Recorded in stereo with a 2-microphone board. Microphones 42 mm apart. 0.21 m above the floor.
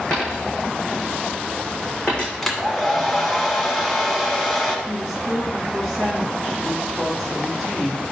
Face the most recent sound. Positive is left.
turn(degrees=-5)  # may be behind; listen again after turning